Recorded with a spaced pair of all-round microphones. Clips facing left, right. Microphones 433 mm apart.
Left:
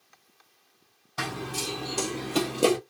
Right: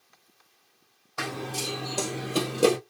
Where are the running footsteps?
30° left (ahead or behind), 1.5 m; by 2.8 s 5° right (ahead or behind), 1.4 m.